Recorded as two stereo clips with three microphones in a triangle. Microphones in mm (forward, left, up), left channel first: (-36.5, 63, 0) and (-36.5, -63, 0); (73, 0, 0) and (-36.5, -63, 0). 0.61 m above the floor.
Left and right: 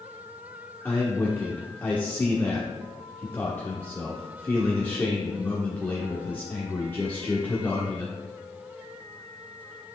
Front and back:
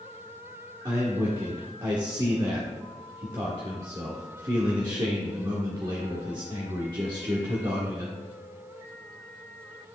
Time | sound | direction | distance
0.8 | a man speaking | 160° left | 1.1 m